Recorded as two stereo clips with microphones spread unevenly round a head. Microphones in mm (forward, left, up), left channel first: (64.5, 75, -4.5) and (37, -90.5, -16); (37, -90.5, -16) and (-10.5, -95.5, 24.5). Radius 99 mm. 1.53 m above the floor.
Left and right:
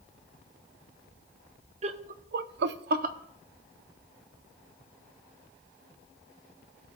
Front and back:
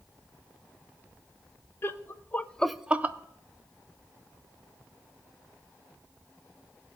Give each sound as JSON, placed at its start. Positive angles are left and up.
{"t": 1.8, "sound": "laughter", "azimuth_deg": -50, "distance_m": 1.0}